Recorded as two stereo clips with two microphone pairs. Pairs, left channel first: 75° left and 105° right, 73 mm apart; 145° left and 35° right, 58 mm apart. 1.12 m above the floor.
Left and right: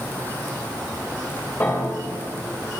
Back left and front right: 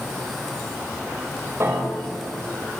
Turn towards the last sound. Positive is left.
turn(degrees=15)